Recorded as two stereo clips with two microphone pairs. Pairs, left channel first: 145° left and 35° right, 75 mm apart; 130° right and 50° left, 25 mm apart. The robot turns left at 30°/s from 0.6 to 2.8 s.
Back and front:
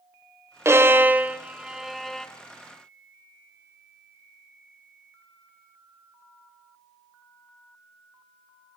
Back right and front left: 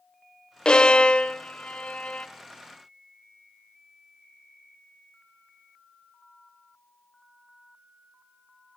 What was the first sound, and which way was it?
A violin, 80° right.